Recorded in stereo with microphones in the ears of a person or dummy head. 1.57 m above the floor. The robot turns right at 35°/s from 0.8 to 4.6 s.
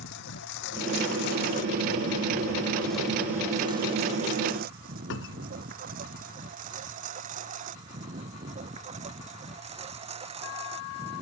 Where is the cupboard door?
70° left (ahead or behind).